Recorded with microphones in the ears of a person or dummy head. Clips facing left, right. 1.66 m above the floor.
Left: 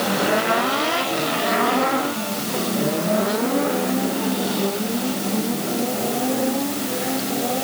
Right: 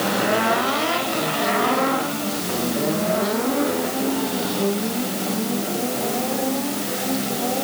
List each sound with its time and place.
Only background noise.